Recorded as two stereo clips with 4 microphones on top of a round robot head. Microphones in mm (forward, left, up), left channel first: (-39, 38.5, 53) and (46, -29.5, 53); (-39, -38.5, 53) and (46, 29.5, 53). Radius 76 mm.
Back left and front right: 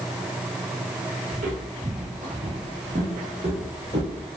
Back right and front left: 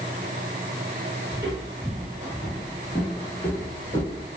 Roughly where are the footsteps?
Ahead.